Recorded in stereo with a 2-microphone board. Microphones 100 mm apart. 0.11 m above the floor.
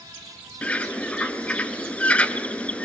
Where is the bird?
10° left (ahead or behind), 1.4 m.